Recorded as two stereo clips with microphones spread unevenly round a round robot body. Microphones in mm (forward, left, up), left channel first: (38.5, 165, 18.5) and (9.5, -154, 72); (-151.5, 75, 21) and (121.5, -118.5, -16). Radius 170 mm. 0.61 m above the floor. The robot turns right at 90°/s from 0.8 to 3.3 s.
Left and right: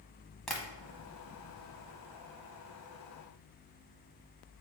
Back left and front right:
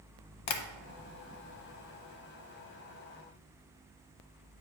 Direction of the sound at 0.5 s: Straight behind.